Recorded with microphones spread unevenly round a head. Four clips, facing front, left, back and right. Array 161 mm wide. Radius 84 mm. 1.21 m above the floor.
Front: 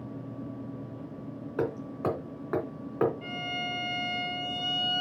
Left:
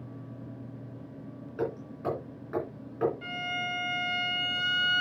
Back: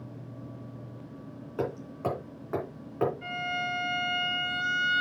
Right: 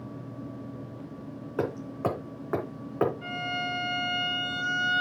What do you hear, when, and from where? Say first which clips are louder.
1.6 s hammering: right 4 dB, front 1 dB; 55° right, 3 m
3.2 s a violin: right 3 dB, back 3 dB; 60° left, 4.5 m